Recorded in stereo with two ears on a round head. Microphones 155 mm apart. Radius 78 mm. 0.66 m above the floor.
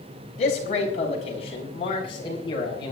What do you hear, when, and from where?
0.4 s a man speaking: 45° left (ahead or behind), 4.5 m; by 2.9 s 30° left (ahead or behind), 5 m